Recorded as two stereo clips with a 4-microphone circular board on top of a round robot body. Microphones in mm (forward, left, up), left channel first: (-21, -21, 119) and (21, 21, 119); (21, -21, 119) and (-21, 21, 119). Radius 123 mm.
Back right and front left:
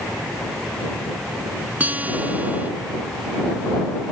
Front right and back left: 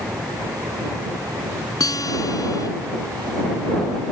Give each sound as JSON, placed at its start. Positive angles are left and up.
{"t": 1.8, "sound": "a guitar", "azimuth_deg": -20}